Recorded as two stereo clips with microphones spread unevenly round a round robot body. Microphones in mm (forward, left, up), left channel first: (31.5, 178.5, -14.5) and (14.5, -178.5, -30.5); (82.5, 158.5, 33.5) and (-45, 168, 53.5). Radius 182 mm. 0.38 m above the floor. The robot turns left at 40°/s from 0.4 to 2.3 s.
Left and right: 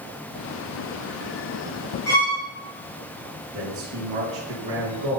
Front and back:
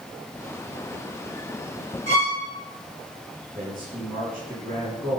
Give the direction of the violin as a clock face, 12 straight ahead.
12 o'clock.